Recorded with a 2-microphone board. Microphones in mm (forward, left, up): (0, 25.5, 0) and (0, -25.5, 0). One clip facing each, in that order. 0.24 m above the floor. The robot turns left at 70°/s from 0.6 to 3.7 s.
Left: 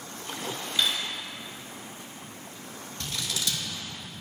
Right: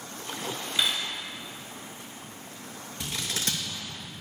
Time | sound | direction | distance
0.8 | cutlery clinking | 20° right (ahead or behind) | 1.3 m
3.0 | scissors | 15° right (ahead or behind) | 1.2 m